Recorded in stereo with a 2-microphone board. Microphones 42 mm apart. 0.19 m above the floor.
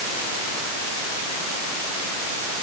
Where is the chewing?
No chewing in this recording.